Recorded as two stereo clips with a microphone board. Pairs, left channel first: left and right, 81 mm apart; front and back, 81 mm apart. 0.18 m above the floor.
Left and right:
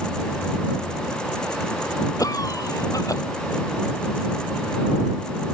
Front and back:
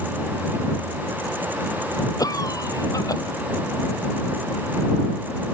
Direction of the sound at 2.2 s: 45° left.